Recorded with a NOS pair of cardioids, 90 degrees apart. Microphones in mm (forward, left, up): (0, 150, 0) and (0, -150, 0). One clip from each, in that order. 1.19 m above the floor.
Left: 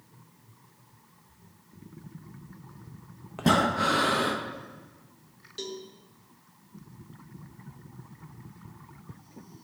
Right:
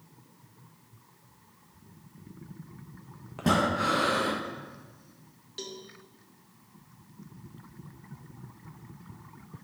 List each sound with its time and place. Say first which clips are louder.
3.4 s breathing: left 2 dB; 15° left, 0.8 m
5.6 s a cowbell: left 3 dB; straight ahead, 1.0 m